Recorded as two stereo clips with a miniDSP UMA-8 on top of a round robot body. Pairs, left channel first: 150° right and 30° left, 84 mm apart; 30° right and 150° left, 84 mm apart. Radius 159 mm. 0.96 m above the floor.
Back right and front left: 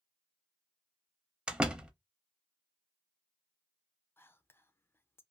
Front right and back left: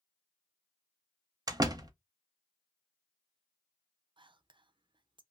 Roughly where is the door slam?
Left.